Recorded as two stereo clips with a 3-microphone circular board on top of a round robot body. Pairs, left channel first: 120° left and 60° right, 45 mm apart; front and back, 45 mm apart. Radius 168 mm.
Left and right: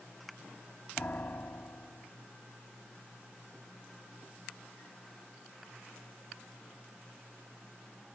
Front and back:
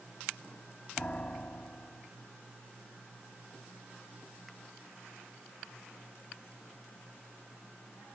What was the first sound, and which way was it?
A piano, 65° left.